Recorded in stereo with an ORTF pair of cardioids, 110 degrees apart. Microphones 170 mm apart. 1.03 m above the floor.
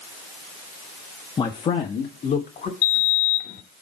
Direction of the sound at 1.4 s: 25° left.